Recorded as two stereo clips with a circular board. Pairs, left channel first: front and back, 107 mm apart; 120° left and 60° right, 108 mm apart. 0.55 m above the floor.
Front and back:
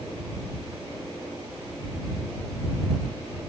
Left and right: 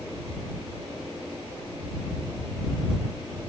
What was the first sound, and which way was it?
Only background noise.